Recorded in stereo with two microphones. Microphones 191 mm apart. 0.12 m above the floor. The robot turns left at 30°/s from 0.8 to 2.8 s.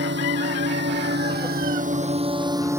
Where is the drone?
70° right (ahead or behind); by 2.8 s 10° right (ahead or behind).